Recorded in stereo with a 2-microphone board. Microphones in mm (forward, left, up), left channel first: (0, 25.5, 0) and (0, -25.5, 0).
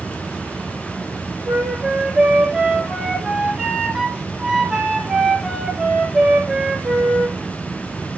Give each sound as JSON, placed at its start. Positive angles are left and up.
{"t": 1.4, "sound": "a flute", "side_deg": -10, "distance_m": 4.0}